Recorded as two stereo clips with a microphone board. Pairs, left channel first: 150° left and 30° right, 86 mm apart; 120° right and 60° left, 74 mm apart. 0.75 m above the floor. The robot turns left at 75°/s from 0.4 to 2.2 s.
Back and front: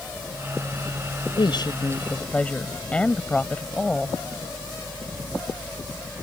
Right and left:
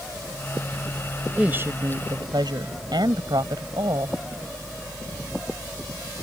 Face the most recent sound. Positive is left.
turn(degrees=75)